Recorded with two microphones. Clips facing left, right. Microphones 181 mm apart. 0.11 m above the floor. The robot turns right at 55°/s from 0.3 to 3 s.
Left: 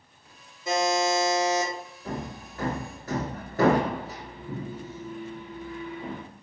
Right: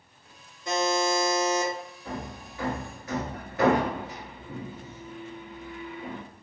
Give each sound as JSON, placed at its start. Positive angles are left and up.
{"t": 0.7, "sound": "a buzzer", "azimuth_deg": 10, "distance_m": 1.8}
{"t": 2.0, "sound": "hammering", "side_deg": 40, "distance_m": 0.9}